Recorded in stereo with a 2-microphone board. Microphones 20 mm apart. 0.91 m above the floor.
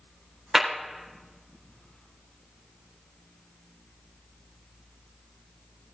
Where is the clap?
15° right (ahead or behind), 4 m.